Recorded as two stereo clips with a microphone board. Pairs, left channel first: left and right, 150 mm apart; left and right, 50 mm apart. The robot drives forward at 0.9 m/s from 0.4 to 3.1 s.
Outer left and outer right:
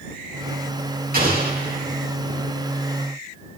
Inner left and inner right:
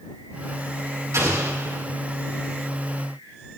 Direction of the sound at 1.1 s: 85° right.